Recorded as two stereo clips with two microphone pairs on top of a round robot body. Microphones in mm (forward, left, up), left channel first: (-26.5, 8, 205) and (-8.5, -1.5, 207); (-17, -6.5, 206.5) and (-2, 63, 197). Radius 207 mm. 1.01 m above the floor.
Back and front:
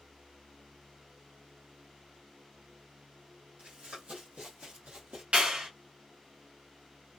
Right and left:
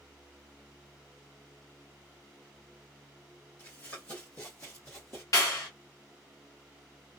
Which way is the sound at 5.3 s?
55° right.